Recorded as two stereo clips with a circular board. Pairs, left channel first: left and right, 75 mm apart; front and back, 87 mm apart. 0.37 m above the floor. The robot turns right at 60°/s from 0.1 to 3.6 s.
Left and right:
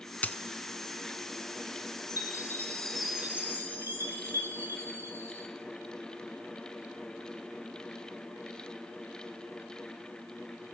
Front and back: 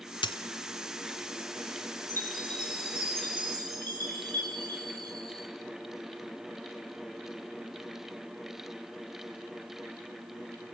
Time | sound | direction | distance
0.2 | a dropped coin | 20° left | 0.8 m
2.1 | a chime | 125° left | 8 m